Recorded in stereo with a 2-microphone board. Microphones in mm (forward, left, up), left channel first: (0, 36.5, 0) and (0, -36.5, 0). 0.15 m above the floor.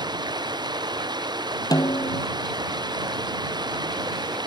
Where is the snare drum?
60° left (ahead or behind).